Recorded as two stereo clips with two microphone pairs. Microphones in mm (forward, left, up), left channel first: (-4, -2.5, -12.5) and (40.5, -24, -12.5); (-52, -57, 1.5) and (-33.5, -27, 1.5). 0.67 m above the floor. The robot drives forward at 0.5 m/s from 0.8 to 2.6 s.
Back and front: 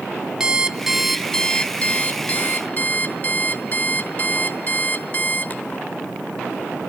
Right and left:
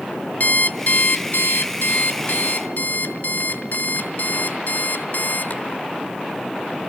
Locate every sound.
0.4 s an alarm clock: 95° right, 0.6 m; by 5.9 s 150° right, 1.1 m